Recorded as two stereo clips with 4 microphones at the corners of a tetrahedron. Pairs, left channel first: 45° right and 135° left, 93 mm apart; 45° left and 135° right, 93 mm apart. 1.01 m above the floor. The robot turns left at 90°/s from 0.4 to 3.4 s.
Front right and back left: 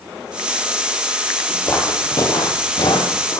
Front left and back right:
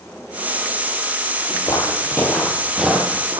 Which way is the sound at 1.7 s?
10° left.